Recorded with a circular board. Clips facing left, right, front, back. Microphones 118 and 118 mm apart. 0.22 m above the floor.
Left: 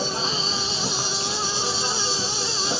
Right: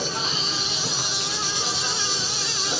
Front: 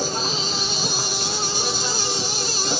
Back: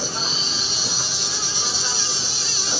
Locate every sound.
0.0 s an insect: 30° left, 4 m